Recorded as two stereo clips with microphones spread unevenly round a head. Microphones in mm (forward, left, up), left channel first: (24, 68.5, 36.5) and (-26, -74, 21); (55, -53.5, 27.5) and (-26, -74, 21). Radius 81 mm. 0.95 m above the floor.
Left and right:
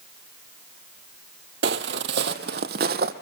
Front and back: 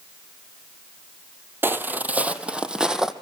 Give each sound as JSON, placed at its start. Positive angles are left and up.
{"t": 1.6, "sound": "footsteps", "azimuth_deg": -105, "distance_m": 1.5}